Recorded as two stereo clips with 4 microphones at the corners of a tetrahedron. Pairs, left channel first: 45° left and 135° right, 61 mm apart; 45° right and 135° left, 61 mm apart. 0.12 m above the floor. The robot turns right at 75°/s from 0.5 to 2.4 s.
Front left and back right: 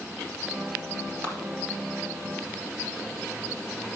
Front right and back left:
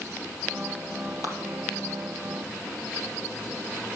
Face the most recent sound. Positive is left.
turn(degrees=60)